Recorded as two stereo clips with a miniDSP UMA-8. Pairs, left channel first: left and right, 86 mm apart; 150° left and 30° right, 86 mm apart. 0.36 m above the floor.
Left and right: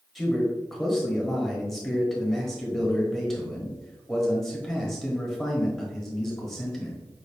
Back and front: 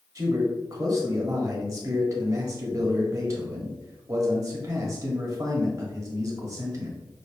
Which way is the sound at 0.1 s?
5° left.